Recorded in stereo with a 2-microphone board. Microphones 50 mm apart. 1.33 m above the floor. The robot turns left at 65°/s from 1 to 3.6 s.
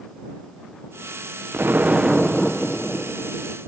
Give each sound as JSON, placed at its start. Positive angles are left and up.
{"t": 1.5, "sound": "an explosion", "azimuth_deg": -130}